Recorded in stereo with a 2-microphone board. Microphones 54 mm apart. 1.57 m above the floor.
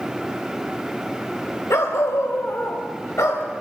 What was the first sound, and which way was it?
A dog barking, 70° left (ahead or behind).